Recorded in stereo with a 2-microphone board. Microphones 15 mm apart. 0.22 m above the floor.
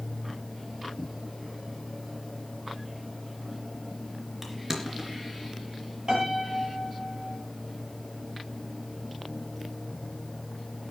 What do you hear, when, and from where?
4.4 s crushing: 20° right (ahead or behind), 3 m
6.1 s a piano: 50° right (ahead or behind), 6 m